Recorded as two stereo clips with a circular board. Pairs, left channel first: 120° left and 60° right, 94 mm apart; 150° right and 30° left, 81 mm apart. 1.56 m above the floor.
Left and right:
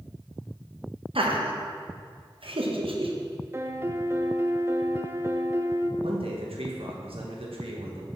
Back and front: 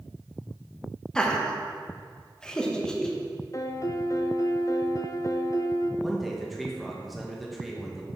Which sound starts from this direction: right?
Laughter, at 1.1 s.